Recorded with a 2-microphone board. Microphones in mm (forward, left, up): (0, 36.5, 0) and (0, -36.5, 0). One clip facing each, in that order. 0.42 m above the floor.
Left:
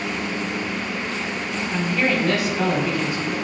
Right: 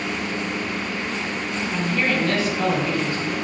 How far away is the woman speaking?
About 3 m.